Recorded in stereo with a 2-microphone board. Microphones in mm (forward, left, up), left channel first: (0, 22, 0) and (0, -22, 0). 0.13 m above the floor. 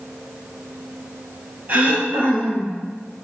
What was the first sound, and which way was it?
Throat clearing, 40° right (ahead or behind).